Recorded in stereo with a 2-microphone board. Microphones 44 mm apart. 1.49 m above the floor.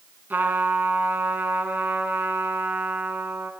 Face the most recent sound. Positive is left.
turn(degrees=-40)  # may be behind; listen again after turning